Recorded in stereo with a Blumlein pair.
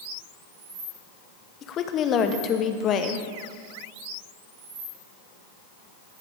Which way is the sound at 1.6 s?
30° left.